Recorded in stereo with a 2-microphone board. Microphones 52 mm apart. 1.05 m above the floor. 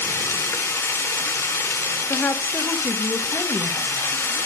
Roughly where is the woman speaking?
Left.